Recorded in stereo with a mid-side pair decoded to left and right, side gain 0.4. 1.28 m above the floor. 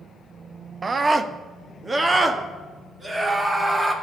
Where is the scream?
35° right, 1.0 m; by 3.9 s 25° right, 3.5 m.